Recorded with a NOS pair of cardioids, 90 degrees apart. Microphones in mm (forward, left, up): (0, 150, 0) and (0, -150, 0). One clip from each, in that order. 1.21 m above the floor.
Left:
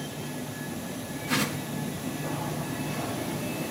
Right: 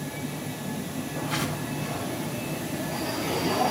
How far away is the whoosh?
About 2 m.